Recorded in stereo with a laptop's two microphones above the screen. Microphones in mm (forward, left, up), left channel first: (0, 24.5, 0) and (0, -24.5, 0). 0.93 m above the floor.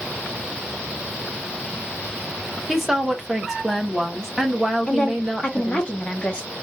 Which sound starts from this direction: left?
A woman speaking, at 4.9 s.